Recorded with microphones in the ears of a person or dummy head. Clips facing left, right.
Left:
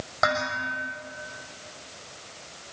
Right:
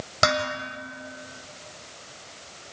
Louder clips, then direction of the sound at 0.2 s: Right 2 dB; 40° right (ahead or behind).